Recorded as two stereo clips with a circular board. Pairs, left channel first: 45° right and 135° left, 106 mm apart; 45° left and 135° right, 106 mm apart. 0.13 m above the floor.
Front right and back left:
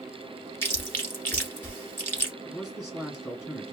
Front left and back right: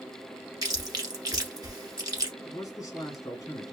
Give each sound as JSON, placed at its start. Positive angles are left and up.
{"t": 0.6, "sound": "chewing", "azimuth_deg": -105, "distance_m": 1.2}
{"t": 2.4, "sound": "a man speaking", "azimuth_deg": 55, "distance_m": 1.9}